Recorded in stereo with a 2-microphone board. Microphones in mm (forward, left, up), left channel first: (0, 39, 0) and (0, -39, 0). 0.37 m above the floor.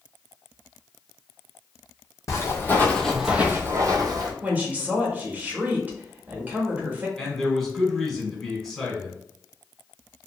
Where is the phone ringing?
I don't hear a phone ringing.